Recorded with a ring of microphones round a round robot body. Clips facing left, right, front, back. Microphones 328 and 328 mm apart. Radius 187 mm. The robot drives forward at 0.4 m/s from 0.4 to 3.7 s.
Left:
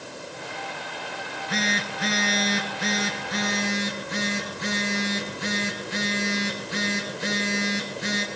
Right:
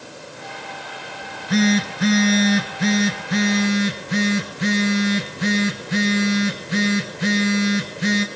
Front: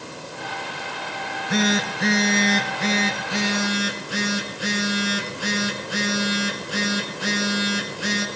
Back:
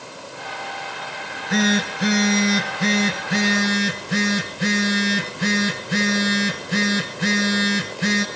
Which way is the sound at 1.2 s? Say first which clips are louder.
Right 13 dB, back 2 dB; 85° right.